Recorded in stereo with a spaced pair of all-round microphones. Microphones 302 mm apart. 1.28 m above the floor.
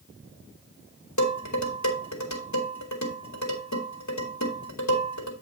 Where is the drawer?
I don't hear a drawer.